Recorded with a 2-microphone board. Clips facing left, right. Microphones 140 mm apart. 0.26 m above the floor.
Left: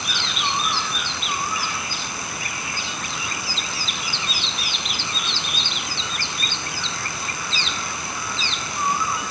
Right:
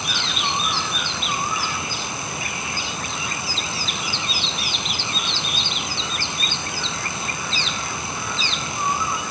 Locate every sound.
Only background noise.